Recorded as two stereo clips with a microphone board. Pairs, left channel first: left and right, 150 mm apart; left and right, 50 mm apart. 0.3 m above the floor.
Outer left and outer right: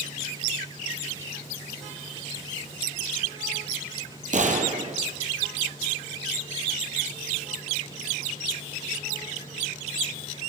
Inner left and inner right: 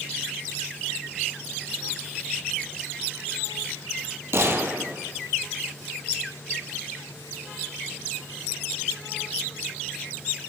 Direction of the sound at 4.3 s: 55° right (ahead or behind).